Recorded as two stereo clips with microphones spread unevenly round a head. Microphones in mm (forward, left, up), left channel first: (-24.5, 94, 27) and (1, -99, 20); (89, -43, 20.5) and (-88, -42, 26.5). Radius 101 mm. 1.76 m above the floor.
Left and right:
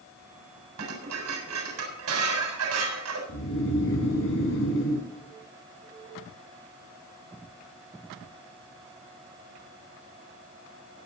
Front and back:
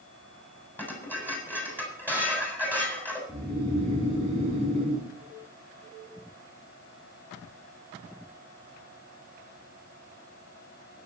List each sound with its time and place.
0.8 s dishes clattering: 80° right, 7 m
3.3 s snoring: 115° left, 7 m